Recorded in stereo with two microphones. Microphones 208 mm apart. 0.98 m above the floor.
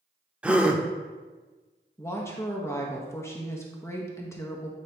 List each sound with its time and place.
0.4 s a gasp: 5° right (ahead or behind), 0.6 m
2.0 s a woman speaking: 15° left (ahead or behind), 0.9 m